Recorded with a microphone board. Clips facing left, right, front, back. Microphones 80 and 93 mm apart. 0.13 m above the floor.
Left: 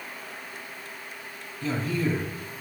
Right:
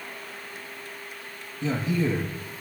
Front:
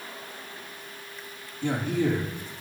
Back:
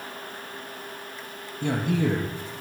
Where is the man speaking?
160° right, 4.5 m.